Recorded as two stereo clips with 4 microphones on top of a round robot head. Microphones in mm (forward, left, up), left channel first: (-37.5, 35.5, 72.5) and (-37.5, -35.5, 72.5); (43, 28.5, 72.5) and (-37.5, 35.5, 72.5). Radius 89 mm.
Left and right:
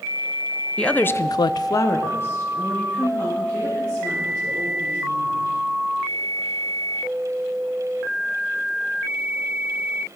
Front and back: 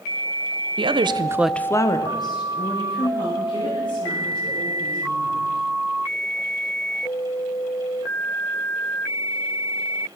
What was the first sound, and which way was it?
A woman speaking, 165° left.